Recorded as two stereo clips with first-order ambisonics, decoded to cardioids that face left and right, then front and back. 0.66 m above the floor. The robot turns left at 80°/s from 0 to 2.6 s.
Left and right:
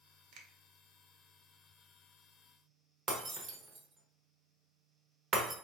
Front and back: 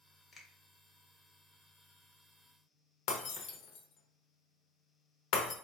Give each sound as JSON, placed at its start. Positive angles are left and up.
{"t": 0.3, "sound": "a finger snap", "azimuth_deg": -70, "distance_m": 0.7}
{"t": 3.1, "sound": "breaking glass", "azimuth_deg": -25, "distance_m": 0.7}